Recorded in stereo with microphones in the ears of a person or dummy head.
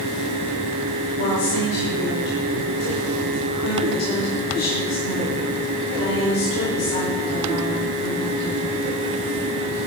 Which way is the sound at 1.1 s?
85° left.